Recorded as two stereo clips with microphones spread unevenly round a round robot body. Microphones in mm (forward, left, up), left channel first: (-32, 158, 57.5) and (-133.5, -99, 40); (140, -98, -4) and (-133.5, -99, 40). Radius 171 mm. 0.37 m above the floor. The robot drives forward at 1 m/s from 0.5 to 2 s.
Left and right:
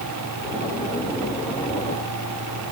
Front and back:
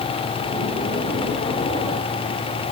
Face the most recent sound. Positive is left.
No sound to turn to.